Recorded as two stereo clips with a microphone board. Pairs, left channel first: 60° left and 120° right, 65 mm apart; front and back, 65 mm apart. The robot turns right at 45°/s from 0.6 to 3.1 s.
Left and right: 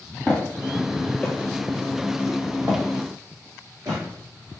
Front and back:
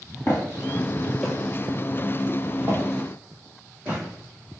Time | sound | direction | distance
0.3 | footsteps | 5° left | 1.6 m